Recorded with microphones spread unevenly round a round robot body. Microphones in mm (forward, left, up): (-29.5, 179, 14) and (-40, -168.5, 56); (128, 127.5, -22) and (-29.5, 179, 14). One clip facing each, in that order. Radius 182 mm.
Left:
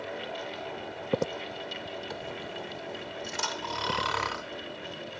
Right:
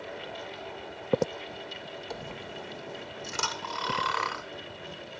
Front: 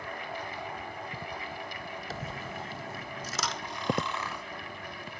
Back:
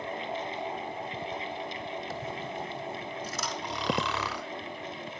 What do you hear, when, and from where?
2.1 s a dropped coin: 15° right, 1.0 m
3.6 s snoring: 135° left, 0.8 m